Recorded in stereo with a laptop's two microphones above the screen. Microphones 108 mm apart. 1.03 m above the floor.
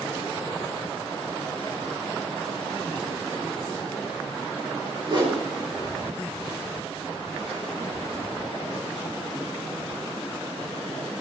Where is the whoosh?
45° right (ahead or behind), 3.5 m.